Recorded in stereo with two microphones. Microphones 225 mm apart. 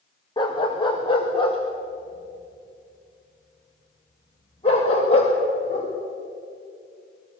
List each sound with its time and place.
0.4 s a dog barking: 20° left (ahead or behind), 3.5 m; by 5.9 s 25° left (ahead or behind), 7.5 m